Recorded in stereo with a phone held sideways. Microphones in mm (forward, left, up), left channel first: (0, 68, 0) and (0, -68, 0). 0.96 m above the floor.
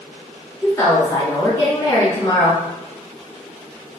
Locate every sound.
0.6 s a woman speaking: 30° left (ahead or behind), 1.3 m